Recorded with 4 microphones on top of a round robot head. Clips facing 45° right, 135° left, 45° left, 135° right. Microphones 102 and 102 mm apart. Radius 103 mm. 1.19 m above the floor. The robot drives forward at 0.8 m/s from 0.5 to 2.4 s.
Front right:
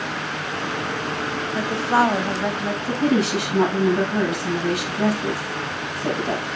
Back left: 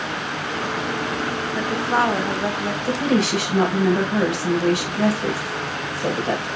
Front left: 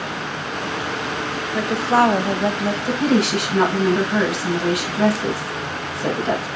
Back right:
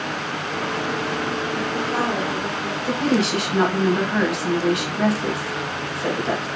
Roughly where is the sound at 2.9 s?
Behind left.